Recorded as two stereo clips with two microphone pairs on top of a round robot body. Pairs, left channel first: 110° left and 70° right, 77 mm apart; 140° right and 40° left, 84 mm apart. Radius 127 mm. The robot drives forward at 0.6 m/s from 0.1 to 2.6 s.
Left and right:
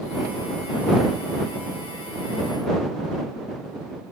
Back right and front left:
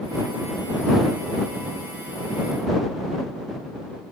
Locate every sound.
Only background noise.